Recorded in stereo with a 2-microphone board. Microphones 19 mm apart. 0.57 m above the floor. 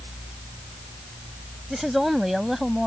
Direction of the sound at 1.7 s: 5° right (ahead or behind).